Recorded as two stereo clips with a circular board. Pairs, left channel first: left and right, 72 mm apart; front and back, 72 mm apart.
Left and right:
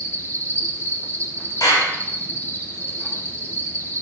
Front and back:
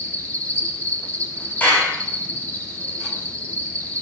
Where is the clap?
65° left, 4.5 m.